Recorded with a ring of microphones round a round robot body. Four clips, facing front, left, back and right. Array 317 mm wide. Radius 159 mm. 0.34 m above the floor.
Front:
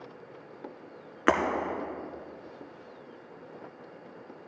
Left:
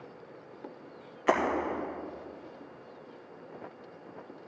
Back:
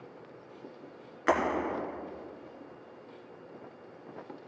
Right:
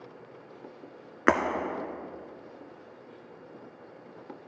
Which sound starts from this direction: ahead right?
Breaking glass, at 1.3 s.